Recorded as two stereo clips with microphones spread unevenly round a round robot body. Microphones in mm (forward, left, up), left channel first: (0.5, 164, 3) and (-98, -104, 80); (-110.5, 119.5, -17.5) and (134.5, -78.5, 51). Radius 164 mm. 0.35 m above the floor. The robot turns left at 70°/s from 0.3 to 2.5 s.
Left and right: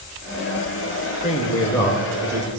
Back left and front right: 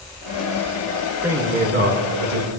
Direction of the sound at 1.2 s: 65° left.